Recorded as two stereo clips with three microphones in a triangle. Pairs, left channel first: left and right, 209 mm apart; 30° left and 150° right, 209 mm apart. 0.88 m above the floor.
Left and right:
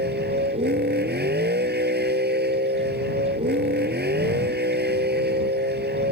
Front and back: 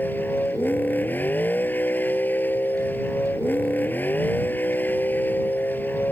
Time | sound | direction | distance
0.0 | a vehicle | 50° right | ?